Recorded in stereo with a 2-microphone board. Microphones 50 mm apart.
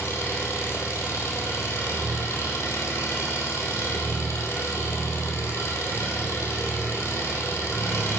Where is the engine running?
65° left (ahead or behind), 4 m.